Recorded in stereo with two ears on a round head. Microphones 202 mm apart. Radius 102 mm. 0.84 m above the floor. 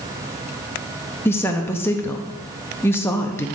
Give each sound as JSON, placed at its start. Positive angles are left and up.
{"t": 1.2, "sound": "a woman speaking", "side_deg": 10, "distance_m": 0.6}